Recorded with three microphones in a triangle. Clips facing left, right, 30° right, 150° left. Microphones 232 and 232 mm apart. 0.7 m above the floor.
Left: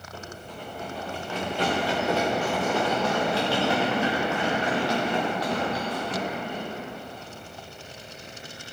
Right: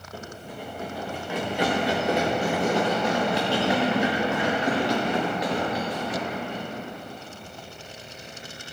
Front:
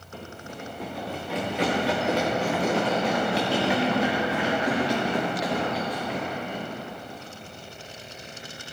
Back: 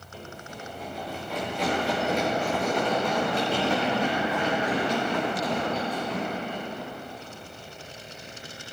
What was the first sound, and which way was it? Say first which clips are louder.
Running footsteps: right 2 dB, front 2 dB; 10° right.